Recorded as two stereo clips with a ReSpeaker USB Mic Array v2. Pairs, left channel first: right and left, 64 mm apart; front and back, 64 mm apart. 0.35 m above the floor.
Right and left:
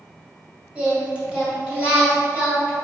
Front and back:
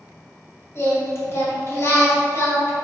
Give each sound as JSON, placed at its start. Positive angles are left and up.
{"t": 0.8, "sound": "singing", "azimuth_deg": 25, "distance_m": 2.0}